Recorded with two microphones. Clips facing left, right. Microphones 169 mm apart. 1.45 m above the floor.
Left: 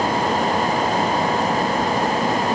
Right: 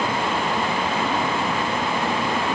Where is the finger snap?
I don't hear a finger snap.